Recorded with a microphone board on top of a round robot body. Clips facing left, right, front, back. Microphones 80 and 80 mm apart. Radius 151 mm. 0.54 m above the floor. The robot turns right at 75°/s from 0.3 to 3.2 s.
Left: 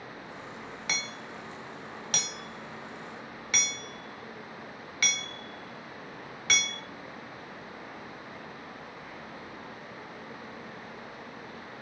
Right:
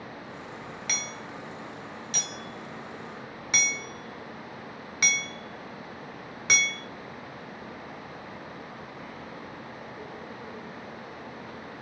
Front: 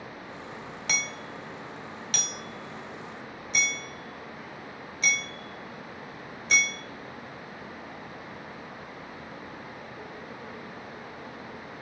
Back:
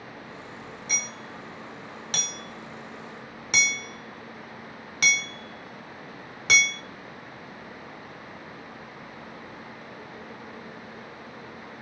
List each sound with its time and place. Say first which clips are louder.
0.9 s hammering: left 2 dB, front 4 dB; 25° left, 0.5 m; by 6.8 s 160° right, 0.5 m